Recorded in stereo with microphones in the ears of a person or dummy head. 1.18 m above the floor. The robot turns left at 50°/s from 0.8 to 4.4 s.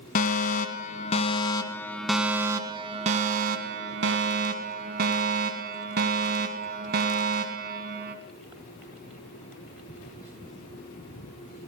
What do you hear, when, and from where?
0.1 s a fire alarm: 70° left, 1.4 m; by 8.2 s 110° right, 1.4 m